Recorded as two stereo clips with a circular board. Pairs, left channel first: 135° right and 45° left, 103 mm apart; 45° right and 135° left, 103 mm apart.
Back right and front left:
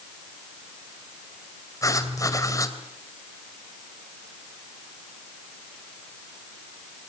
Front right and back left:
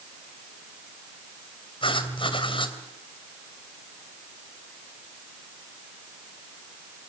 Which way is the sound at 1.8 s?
80° right.